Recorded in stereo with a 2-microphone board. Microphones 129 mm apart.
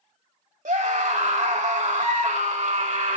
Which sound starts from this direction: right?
A scream, at 0.7 s.